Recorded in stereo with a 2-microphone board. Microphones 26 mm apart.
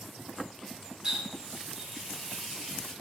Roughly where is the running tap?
Right.